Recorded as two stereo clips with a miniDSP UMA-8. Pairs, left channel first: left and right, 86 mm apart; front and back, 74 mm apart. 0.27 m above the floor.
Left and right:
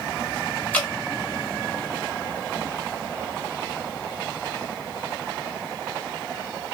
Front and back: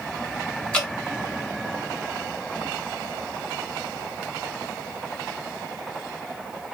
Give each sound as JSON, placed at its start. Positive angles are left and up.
{"t": 0.7, "sound": "dripping", "azimuth_deg": 50, "distance_m": 1.3}